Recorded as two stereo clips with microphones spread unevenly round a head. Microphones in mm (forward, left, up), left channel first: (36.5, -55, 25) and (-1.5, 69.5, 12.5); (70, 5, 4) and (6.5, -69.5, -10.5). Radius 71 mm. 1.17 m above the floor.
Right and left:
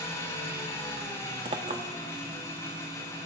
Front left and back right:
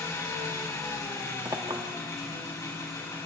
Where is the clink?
160° left, 1.0 m.